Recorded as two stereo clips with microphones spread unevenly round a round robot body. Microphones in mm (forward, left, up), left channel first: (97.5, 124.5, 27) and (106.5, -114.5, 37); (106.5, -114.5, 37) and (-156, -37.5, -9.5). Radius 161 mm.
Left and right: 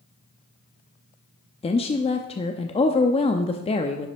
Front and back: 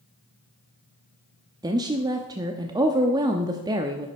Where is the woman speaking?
125° left, 0.6 m.